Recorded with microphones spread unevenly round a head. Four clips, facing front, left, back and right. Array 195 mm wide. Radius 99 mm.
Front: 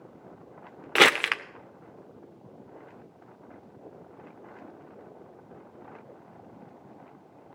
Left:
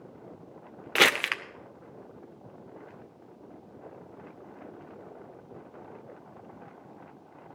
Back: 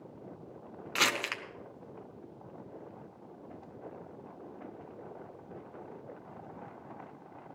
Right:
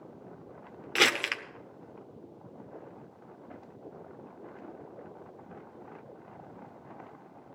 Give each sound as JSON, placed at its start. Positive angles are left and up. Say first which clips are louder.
{"t": 0.9, "sound": "crumpling", "louder": "left 3 dB, front 11 dB", "azimuth_deg": 15, "distance_m": 0.8}